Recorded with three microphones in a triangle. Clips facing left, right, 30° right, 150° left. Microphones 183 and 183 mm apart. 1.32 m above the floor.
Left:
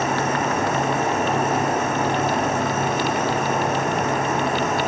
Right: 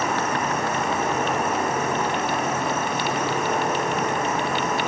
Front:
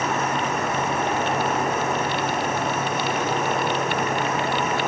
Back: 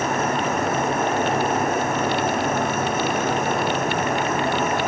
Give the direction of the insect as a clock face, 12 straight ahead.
8 o'clock.